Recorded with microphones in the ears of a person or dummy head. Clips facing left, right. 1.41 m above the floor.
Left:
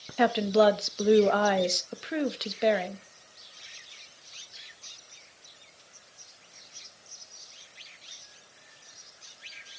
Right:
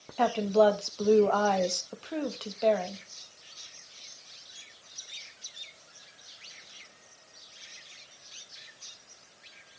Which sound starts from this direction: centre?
A woman speaking, at 0.2 s.